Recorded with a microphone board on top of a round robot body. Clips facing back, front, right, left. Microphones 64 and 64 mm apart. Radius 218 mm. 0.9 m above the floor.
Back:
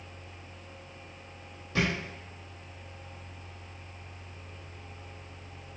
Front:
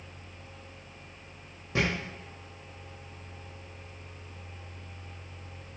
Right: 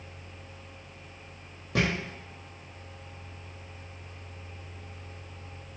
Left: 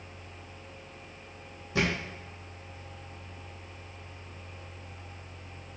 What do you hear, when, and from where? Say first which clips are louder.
1.8 s a thud: even, right 1 dB; 65° right, 0.8 m